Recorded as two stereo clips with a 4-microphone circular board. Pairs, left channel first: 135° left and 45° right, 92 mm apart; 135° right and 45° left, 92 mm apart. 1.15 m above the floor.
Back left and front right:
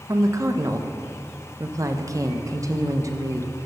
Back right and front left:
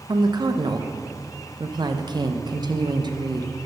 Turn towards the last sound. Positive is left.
turn(degrees=5)